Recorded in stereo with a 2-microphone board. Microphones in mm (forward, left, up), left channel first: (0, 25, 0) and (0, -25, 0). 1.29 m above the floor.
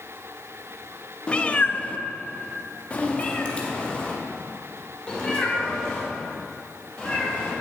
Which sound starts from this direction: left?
A cat meowing, at 1.3 s.